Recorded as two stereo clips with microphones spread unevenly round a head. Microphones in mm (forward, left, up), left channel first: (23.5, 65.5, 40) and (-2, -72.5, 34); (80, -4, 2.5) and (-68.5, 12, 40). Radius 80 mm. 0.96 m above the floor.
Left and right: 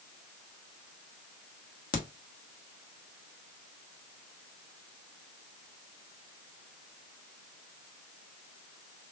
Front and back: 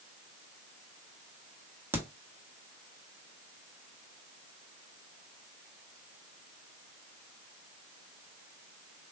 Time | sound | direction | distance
1.9 | a crack | 90° left | 1.1 m